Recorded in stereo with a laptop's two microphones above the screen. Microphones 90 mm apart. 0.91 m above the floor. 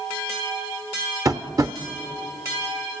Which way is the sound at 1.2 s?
40° right (ahead or behind).